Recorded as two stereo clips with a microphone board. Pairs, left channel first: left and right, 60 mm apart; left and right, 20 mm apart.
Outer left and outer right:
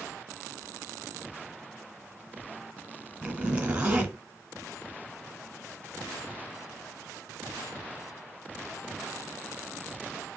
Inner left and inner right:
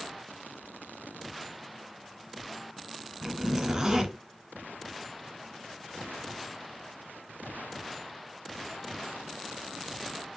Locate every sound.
3.2 s a zipper: 20° right (ahead or behind), 1.3 m